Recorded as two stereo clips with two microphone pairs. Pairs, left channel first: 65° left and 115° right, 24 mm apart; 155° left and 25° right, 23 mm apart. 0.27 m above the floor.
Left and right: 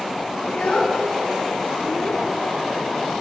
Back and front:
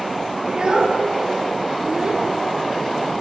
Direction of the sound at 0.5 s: 30° left.